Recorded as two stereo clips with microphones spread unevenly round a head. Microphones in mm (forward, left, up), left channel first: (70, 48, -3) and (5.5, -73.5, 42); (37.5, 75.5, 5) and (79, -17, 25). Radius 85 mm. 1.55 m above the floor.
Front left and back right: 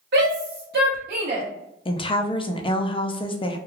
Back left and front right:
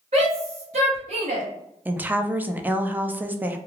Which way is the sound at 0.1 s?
120° right.